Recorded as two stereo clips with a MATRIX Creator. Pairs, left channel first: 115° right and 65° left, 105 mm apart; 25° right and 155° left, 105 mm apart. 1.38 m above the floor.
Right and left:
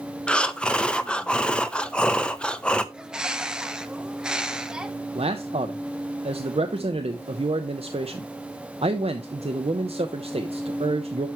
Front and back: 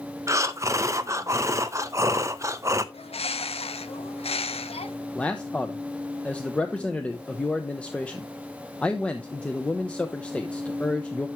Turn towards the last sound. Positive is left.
turn(degrees=55)